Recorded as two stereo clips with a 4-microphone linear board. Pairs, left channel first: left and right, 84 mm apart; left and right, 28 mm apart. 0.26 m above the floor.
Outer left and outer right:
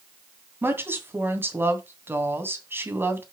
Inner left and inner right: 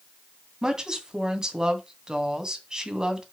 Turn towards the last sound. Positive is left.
turn(degrees=-25)  # may be behind; listen again after turning